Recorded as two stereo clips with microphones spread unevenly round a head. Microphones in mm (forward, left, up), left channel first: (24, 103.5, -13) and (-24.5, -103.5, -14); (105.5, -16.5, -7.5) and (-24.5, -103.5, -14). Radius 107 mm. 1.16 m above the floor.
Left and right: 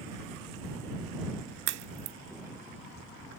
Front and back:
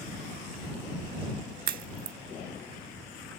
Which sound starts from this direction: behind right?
A crack, at 1.7 s.